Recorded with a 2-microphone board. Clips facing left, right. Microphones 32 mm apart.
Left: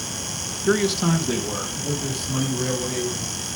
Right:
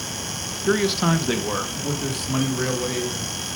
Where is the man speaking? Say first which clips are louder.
Even; 5° left (ahead or behind), 0.7 m; by 3.5 s 55° right (ahead or behind), 4.5 m.